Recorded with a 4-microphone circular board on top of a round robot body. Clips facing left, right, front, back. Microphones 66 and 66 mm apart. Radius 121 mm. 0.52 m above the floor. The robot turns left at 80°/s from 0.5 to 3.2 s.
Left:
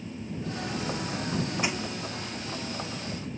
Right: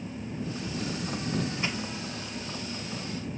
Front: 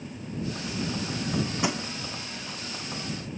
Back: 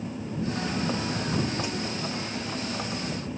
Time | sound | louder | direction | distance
1.6 | crushing | left 2 dB, front 3 dB | 15° left | ?